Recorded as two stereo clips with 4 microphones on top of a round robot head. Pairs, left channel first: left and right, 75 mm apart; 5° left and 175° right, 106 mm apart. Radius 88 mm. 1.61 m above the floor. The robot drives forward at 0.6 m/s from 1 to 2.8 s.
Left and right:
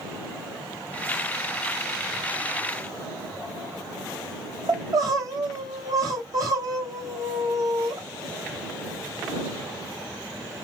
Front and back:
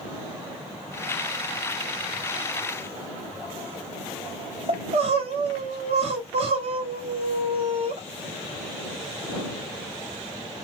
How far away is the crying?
About 1.1 m.